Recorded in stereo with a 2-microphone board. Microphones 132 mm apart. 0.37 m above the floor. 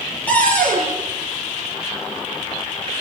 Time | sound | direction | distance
0.3 | a cupboard door | 10° left (ahead or behind) | 5 m